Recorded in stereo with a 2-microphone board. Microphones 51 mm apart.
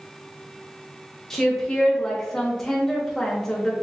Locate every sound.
1.3 s a woman speaking: 10° left (ahead or behind), 0.9 m